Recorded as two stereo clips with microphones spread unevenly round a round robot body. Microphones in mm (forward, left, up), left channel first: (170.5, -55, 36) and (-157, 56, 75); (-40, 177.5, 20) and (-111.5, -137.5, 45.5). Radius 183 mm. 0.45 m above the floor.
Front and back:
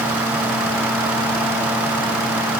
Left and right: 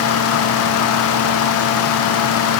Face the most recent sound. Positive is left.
No sound to turn to.